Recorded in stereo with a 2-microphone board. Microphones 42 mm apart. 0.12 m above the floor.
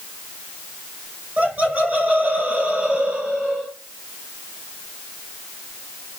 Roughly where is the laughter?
Right.